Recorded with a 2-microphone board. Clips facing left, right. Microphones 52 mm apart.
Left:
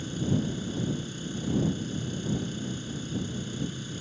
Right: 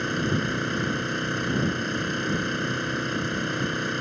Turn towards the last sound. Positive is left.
turn(degrees=-65)  # may be behind; listen again after turning